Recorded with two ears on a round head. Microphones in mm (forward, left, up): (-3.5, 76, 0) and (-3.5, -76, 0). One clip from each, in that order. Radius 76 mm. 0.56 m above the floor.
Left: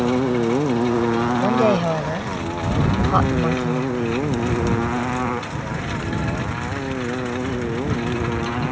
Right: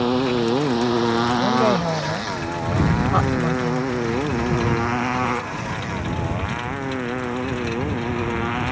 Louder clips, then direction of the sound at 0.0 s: Even; 80° right.